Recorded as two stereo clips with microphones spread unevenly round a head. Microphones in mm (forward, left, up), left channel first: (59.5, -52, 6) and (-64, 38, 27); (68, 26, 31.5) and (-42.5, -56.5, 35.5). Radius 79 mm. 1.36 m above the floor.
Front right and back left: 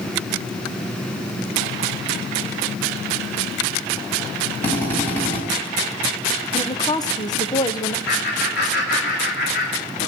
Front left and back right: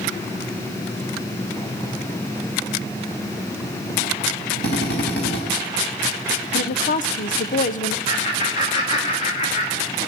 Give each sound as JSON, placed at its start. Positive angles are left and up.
{"t": 4.6, "sound": "a drill", "azimuth_deg": 45, "distance_m": 4.5}
{"t": 6.5, "sound": "a woman speaking", "azimuth_deg": 20, "distance_m": 0.8}
{"t": 8.1, "sound": "laughter", "azimuth_deg": -5, "distance_m": 3.0}